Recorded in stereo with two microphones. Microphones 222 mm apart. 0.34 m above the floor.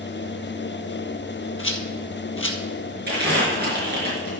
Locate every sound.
1.6 s a rattle: 65° left (ahead or behind), 1.5 m
3.1 s crumpling: 45° right (ahead or behind), 5 m